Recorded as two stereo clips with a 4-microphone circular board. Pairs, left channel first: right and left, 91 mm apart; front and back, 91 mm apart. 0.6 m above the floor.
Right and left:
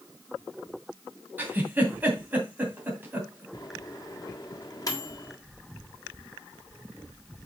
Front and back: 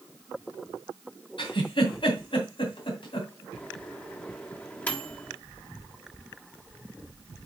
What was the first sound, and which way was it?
A giggle, 20° left.